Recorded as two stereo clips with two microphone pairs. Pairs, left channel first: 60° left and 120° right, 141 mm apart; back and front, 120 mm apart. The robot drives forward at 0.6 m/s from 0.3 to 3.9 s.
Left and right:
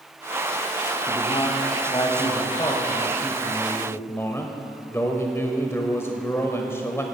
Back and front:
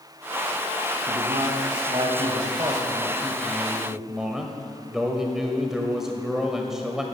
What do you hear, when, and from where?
1.1 s a man speaking: 15° left, 2 m; by 7.0 s 85° left, 1.1 m